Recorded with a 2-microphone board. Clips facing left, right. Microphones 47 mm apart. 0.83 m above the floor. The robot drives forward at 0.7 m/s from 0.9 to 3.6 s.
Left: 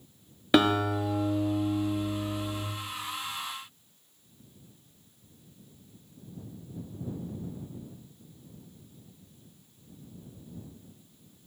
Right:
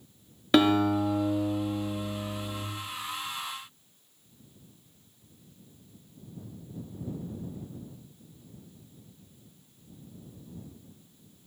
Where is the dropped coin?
I don't hear a dropped coin.